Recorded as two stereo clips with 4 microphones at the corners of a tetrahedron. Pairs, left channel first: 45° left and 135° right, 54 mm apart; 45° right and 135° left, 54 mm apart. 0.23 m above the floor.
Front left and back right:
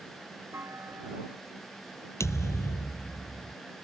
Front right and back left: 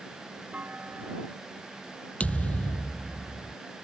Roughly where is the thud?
Ahead.